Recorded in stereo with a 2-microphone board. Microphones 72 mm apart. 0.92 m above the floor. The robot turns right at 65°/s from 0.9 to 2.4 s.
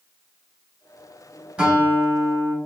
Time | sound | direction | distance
1.6 | a guitar | 165° right | 2 m